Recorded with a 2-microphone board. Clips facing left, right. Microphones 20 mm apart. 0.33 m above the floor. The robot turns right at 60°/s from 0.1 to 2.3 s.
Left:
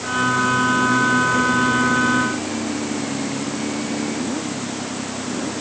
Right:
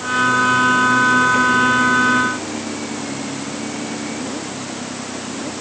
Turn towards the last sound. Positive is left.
No sound to turn to.